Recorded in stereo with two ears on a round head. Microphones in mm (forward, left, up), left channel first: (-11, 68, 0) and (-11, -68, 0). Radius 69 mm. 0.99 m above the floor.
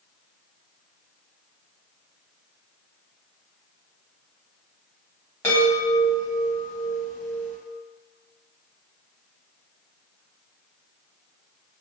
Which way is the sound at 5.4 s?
15° left (ahead or behind).